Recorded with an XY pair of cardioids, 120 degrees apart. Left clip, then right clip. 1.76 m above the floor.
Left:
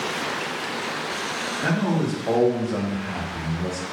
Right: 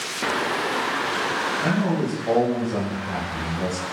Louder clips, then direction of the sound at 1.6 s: Right 1 dB; 20° left.